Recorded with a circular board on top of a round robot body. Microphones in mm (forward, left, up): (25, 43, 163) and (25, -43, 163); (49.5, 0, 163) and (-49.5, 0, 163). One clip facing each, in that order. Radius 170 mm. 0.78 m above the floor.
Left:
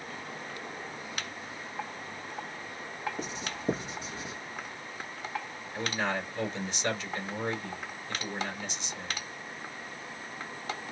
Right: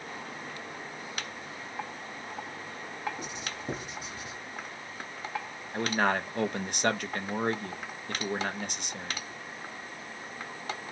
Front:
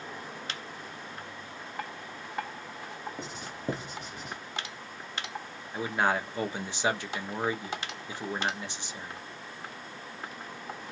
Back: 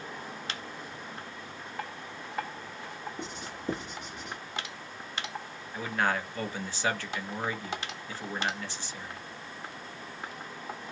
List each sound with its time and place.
3.2 s writing: 35° left, 0.6 m
5.7 s a man speaking: 70° right, 0.9 m